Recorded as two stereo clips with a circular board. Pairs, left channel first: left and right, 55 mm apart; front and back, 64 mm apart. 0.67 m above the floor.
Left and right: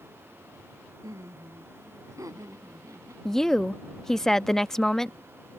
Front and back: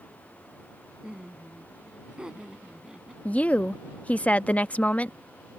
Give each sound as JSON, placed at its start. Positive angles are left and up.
{"t": 1.0, "sound": "laughter", "azimuth_deg": -100}
{"t": 3.2, "sound": "a woman speaking", "azimuth_deg": 25}